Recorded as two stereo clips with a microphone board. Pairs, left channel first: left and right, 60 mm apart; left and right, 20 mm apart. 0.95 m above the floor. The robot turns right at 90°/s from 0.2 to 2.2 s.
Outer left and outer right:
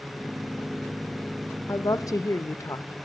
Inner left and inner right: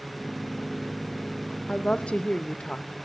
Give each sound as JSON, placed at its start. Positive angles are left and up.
{"t": 1.7, "sound": "a woman speaking", "azimuth_deg": 65, "distance_m": 0.5}